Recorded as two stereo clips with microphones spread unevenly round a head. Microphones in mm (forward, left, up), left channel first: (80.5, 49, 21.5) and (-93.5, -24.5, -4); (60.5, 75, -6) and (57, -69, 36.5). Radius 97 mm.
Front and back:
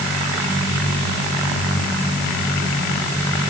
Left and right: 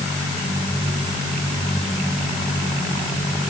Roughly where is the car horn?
No car horn in this recording.